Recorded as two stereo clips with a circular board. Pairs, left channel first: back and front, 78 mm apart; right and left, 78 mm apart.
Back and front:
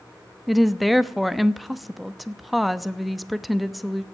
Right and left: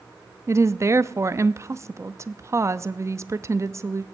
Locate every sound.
0.5 s a woman speaking: 90° left, 0.7 m